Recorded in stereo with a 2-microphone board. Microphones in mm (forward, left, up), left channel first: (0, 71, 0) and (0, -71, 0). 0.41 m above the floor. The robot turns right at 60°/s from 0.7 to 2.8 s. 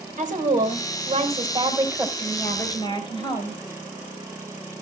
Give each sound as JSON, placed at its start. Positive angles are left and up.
{"t": 0.2, "sound": "a woman speaking", "azimuth_deg": -90, "distance_m": 2.5}